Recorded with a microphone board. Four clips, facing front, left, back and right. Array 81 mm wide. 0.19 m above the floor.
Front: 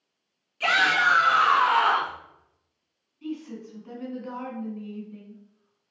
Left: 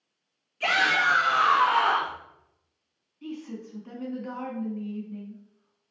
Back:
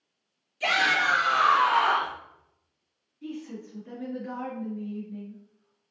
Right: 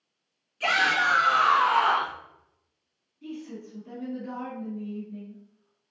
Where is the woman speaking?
55° left, 1.8 m.